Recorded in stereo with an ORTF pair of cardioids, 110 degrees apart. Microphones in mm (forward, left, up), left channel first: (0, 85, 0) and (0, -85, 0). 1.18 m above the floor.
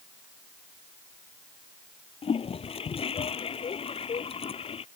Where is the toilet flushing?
35° left.